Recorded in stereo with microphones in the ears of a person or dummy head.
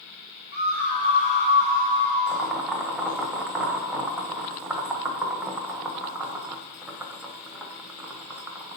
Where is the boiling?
10° right (ahead or behind), 1.3 m.